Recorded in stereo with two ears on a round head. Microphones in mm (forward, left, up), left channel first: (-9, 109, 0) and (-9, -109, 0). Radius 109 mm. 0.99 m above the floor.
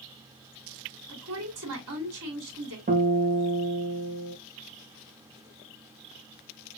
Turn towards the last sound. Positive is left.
turn(degrees=-35)  # may be behind; listen again after turning